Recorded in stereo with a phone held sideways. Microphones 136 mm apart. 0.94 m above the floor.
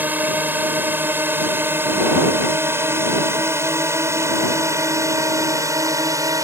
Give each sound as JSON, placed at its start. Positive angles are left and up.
{"t": 0.0, "sound": "a drone", "side_deg": -15}